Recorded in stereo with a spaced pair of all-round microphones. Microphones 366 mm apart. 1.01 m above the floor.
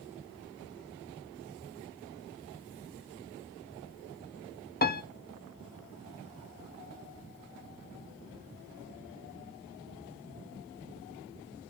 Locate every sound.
4.8 s a piano: 30° left (ahead or behind), 0.6 m